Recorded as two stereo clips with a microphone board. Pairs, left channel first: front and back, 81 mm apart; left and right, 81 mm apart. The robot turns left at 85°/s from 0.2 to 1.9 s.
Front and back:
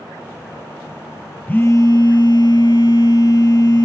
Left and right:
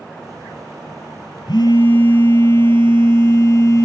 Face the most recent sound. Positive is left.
turn(degrees=35)